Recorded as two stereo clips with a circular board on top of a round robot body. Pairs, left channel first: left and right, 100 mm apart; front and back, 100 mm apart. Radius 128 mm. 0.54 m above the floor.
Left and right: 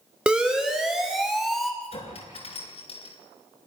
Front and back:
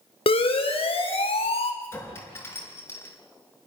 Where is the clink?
65° left, 4.5 m.